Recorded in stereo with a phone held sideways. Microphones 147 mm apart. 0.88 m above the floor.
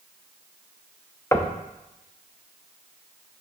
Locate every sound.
1.3 s knocking: 20° left (ahead or behind), 0.6 m